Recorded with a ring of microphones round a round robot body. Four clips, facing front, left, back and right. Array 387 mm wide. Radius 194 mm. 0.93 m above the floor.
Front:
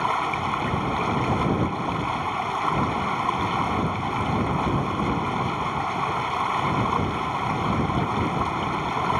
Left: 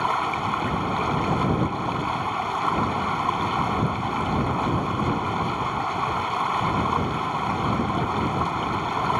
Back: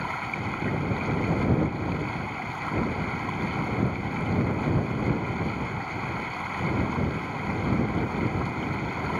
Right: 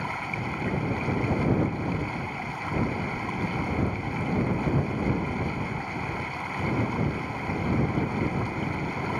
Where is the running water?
45° left.